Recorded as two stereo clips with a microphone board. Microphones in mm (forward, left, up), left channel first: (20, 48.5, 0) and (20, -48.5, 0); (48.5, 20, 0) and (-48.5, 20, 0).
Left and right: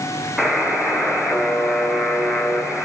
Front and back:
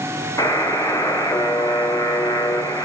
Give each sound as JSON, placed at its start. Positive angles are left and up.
{"t": 0.4, "sound": "a buzzer", "azimuth_deg": 0, "distance_m": 1.8}